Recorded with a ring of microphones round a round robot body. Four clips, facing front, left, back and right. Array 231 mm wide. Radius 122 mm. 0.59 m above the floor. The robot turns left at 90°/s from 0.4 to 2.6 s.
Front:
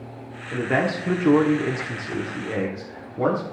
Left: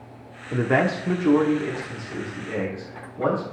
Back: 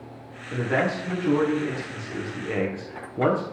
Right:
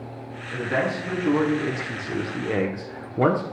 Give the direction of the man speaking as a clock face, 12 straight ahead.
9 o'clock.